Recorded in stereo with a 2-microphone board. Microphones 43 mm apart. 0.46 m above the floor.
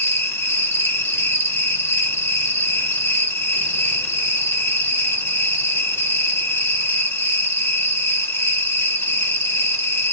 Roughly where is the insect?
Left.